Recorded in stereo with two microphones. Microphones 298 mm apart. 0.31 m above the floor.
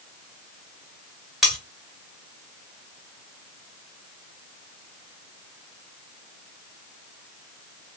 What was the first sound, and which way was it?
Cutlery clinking, centre (ahead or behind).